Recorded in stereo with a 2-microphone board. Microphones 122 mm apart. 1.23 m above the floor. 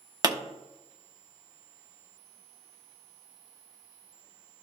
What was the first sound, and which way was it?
A pop, 35° right (ahead or behind).